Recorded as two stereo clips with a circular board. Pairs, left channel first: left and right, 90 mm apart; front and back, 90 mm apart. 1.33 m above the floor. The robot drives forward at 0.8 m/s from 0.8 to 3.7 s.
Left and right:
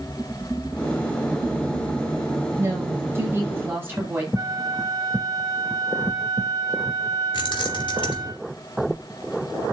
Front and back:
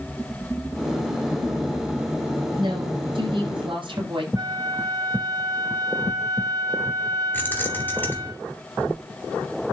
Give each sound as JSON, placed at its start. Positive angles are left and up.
{"t": 2.6, "sound": "a woman speaking", "azimuth_deg": -150, "distance_m": 6.0}
{"t": 4.3, "sound": "a flute", "azimuth_deg": -140, "distance_m": 2.5}
{"t": 7.3, "sound": "keys jangling", "azimuth_deg": 65, "distance_m": 2.5}